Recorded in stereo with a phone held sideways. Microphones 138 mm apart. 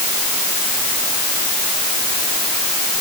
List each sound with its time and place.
Only background noise.